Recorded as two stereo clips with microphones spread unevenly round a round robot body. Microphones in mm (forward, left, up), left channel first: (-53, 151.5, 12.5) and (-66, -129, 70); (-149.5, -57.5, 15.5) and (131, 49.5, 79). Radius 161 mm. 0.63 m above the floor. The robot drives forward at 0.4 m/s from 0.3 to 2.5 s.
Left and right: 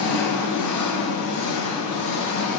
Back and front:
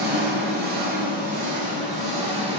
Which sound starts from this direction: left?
An engine running, at 0.0 s.